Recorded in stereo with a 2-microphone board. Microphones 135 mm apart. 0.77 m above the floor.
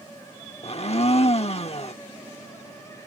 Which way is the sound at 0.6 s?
50° left (ahead or behind).